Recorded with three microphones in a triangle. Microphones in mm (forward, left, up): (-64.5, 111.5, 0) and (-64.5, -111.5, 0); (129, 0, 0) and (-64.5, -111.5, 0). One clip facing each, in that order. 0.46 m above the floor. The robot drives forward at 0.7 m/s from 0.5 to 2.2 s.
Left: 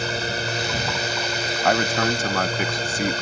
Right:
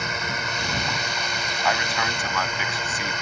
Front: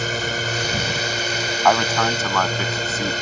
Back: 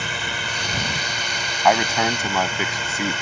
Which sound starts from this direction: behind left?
A man speaking, at 1.6 s.